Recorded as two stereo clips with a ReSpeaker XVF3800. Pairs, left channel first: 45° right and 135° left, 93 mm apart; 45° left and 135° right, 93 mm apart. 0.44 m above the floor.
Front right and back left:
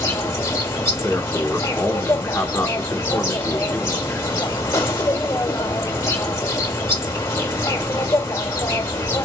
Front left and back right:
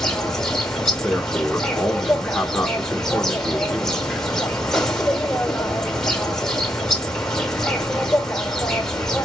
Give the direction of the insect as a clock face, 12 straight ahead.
1 o'clock.